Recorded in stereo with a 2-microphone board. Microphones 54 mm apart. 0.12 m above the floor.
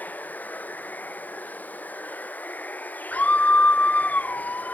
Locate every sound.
0.0 s running water: 30° left (ahead or behind)
3.1 s a scream: 30° left (ahead or behind)